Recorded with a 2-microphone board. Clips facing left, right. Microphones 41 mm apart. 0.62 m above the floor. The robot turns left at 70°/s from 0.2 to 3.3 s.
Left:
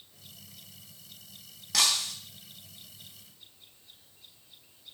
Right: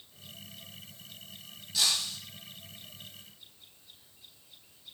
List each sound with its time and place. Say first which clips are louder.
1.7 s breaking glass: left 2 dB; 85° left, 3 m; by 2.2 s 65° left (ahead or behind), 3 m